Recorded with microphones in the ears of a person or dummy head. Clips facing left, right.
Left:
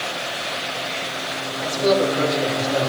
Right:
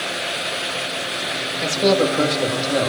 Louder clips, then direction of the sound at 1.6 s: Right 1 dB; 45° right (ahead or behind).